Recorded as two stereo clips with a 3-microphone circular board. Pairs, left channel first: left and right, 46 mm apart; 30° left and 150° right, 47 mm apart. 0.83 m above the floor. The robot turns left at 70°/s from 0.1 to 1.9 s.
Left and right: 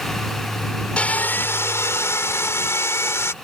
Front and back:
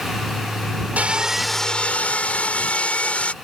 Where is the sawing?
155° left; by 3.3 s 90° left.